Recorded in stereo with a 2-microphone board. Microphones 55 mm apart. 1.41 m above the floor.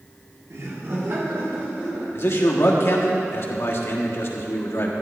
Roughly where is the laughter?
Right.